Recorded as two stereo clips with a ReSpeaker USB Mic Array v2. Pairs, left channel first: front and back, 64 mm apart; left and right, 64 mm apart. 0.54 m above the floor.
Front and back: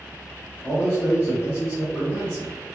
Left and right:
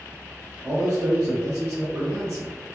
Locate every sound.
0.6 s a man speaking: 70° right, 1.7 m